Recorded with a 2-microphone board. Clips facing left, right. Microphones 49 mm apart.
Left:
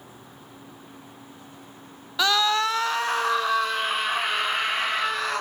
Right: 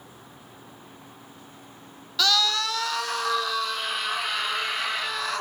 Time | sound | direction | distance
2.2 | a scream | 20° left (ahead or behind) | 0.7 m